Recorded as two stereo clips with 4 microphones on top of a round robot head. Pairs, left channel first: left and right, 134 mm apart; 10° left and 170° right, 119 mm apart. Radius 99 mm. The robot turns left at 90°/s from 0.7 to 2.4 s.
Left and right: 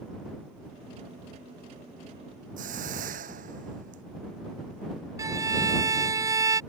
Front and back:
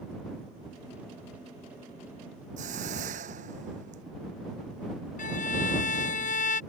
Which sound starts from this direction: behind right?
A hiss, at 2.6 s.